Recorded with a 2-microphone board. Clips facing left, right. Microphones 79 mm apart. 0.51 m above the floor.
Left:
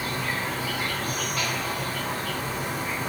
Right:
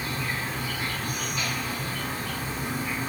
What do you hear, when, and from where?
0.0 s an insect: 65° left (ahead or behind), 0.8 m